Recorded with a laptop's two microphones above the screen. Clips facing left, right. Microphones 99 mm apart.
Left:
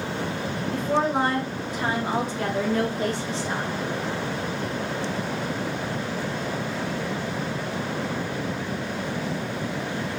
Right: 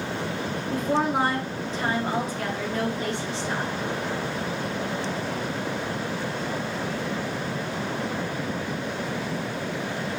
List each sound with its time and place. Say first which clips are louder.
0.7 s a woman speaking: even; 20° right (ahead or behind), 0.9 m; by 3.7 s 45° left (ahead or behind), 1.4 m